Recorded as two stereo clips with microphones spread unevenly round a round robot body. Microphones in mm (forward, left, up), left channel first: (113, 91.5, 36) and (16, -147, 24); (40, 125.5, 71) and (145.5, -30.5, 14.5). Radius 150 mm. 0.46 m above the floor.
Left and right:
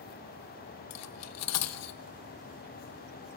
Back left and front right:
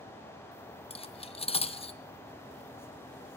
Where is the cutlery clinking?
55° left, 0.7 m.